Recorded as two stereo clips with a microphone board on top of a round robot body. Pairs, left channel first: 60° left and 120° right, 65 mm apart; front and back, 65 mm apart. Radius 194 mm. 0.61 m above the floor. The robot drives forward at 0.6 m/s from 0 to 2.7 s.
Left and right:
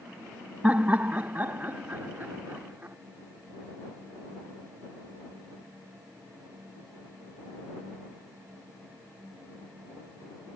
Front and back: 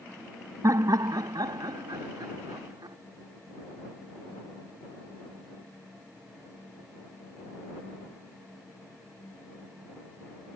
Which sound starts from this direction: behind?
Laughter, at 0.6 s.